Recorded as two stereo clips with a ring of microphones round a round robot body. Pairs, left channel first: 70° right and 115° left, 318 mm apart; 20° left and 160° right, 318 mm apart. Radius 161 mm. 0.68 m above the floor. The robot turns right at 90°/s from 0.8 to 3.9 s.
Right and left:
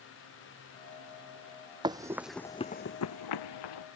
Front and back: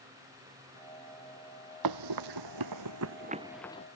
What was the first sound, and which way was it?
Running footsteps, 170° right.